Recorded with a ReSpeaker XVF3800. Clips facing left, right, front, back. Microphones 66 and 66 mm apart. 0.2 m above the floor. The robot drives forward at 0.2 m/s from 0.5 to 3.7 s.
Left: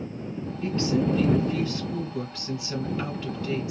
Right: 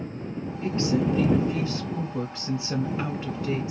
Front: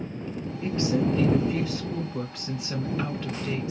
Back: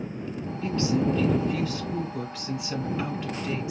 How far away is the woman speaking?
About 1.1 m.